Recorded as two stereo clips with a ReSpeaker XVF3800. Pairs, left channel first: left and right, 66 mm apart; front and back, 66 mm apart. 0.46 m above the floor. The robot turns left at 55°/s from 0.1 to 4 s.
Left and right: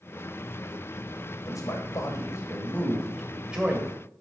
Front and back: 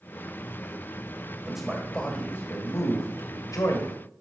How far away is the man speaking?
About 1.9 m.